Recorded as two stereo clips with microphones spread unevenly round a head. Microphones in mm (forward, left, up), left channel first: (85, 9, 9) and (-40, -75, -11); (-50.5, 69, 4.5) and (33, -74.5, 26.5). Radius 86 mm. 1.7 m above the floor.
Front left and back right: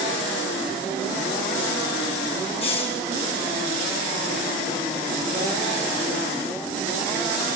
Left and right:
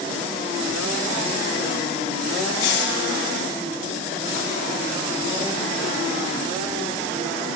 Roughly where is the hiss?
Left.